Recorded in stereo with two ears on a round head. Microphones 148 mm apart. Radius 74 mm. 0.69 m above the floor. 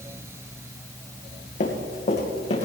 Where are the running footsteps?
45° left (ahead or behind), 2.5 m; by 2.6 s 40° left (ahead or behind), 3 m.